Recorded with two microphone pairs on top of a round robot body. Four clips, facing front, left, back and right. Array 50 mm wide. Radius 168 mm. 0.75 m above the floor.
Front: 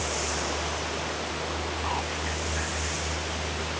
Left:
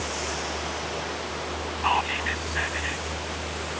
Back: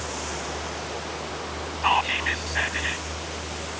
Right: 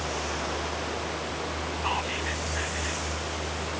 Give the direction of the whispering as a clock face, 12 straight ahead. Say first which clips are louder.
Left 6 dB, back 13 dB; 7 o'clock.